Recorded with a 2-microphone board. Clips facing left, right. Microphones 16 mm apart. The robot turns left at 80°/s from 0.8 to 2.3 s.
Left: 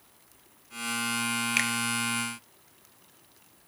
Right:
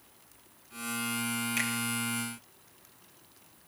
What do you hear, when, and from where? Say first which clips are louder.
1.6 s a finger snap: left 5 dB; 40° left (ahead or behind), 1.1 m; by 1.7 s 45° left (ahead or behind), 1.1 m